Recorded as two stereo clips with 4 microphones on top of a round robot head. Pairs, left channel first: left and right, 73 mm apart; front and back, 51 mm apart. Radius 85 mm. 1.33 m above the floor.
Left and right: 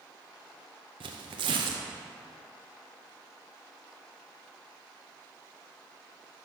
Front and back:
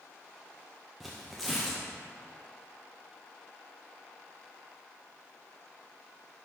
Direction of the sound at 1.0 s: 90° right.